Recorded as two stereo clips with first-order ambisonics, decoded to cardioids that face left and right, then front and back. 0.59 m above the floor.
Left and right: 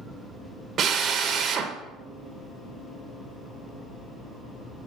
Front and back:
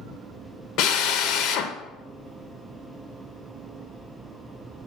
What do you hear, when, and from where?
0.8 s a drill: 30° right, 0.8 m